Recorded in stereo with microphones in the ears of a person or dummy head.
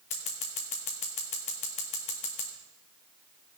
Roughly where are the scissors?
Left.